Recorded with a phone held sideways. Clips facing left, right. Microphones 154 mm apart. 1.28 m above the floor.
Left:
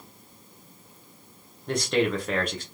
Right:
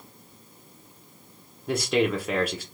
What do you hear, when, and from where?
1.7 s a man speaking: 5° right (ahead or behind), 0.5 m